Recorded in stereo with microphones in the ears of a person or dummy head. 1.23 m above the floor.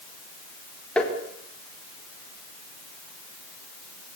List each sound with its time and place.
1.0 s tapping: 5° left (ahead or behind), 4 m